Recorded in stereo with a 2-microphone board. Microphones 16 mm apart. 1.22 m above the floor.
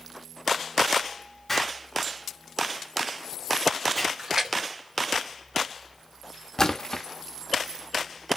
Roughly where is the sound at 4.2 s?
Right.